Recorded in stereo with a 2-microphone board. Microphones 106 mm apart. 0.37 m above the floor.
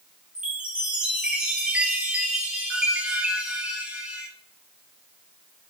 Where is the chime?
10° right (ahead or behind), 2.0 m.